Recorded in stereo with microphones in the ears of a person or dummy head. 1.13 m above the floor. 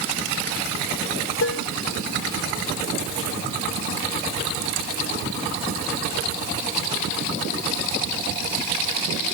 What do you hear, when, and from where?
1.4 s dishes clattering: 80° left